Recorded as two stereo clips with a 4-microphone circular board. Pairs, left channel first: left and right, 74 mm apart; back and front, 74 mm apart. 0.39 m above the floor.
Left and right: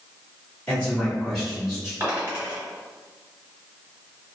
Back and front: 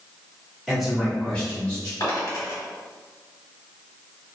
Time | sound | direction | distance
0.7 | a man speaking | 65° left | 1.2 m
2.0 | a dropped coin | 155° right | 1.7 m